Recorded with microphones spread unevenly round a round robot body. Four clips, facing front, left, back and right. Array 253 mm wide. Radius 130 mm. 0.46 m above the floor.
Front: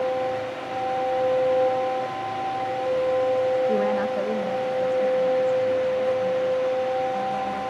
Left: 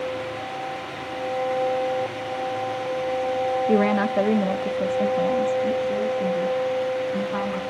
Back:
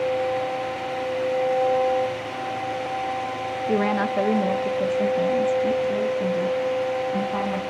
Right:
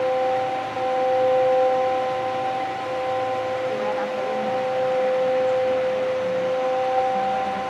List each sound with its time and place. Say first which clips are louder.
3.7 s a woman speaking: left 4 dB, even; 100° left, 1.6 m; by 7.6 s 160° left, 4.5 m